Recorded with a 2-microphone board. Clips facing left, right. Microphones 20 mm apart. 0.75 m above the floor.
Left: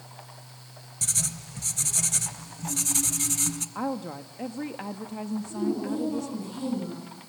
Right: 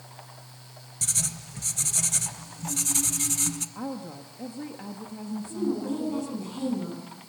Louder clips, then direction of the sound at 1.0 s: Even; centre (ahead or behind).